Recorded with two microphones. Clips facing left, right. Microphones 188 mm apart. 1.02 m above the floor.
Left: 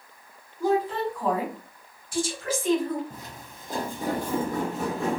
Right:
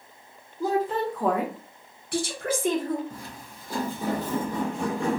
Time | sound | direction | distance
0.6 | a woman speaking | 35° right (ahead or behind) | 0.9 m
3.1 | footsteps | 20° left (ahead or behind) | 1.6 m